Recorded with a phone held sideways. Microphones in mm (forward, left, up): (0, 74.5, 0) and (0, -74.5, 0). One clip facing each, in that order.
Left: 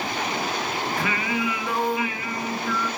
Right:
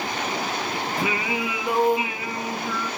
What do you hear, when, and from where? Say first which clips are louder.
1.0 s singing: right 2 dB; 20° right (ahead or behind), 1.3 m